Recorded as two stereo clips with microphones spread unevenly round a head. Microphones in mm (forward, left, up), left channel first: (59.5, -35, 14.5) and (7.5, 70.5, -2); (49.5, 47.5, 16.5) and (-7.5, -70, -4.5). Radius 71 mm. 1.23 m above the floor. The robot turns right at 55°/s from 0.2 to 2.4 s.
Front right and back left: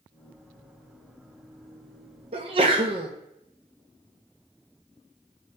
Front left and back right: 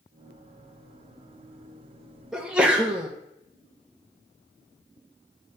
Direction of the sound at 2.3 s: 160° left.